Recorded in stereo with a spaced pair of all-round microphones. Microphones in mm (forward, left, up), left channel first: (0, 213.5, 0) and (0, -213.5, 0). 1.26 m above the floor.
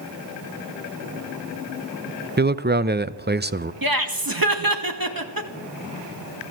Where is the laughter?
50° right (ahead or behind), 2 m.